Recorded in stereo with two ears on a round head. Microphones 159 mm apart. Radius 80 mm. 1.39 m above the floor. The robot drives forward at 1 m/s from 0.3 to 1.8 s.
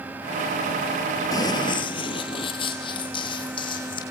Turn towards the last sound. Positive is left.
turn(degrees=25)  # may be behind; listen again after turning